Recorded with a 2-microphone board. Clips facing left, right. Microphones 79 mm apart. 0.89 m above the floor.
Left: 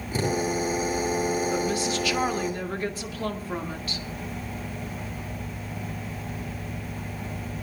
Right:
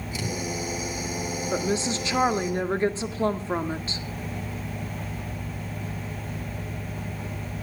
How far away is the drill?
About 8.5 m.